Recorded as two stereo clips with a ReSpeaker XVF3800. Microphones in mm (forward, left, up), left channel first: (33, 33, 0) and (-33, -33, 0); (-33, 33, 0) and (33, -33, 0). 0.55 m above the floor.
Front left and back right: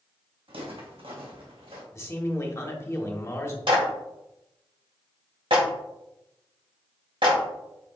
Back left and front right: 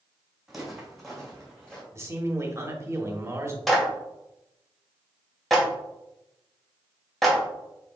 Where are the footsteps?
130° right, 2 m; by 1.8 s 145° right, 2.5 m.